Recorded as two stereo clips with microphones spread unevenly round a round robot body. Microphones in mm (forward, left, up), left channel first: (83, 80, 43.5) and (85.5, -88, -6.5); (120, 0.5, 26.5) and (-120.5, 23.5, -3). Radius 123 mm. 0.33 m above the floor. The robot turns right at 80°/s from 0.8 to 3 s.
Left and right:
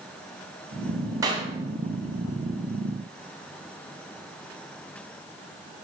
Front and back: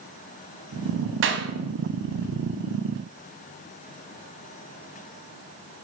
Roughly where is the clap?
Behind right.